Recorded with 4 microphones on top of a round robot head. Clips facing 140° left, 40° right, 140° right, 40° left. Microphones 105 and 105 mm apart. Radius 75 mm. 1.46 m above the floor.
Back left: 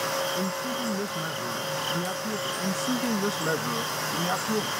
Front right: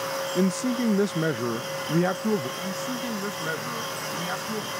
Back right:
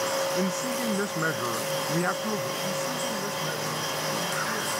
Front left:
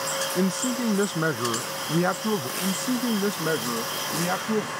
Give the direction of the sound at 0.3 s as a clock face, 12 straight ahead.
1 o'clock.